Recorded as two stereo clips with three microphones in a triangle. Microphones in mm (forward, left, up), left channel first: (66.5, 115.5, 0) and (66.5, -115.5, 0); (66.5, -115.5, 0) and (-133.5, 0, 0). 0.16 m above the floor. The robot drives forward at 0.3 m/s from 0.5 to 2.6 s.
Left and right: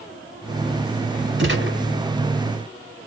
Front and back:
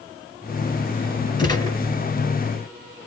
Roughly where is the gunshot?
Right.